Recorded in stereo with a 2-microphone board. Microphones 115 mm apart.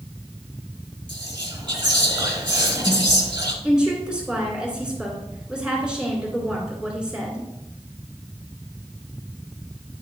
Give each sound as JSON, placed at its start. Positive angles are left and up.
{"t": 1.1, "sound": "whispering", "side_deg": -40, "distance_m": 2.5}
{"t": 3.6, "sound": "a woman speaking", "side_deg": -10, "distance_m": 2.0}